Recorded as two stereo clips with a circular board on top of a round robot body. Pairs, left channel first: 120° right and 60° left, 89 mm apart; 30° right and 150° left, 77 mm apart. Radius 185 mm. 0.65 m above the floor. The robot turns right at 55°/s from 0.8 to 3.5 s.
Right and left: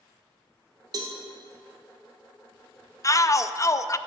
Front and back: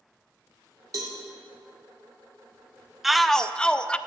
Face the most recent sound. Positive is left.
turn(degrees=-100)